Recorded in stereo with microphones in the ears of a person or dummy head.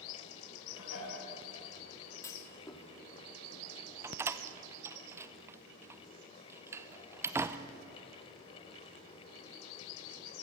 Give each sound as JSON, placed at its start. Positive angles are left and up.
{"t": 0.7, "sound": "dishes clattering", "side_deg": 80, "distance_m": 8.0}
{"t": 2.2, "sound": "a clunk", "side_deg": 15, "distance_m": 1.9}
{"t": 4.0, "sound": "a door slam", "side_deg": -15, "distance_m": 0.7}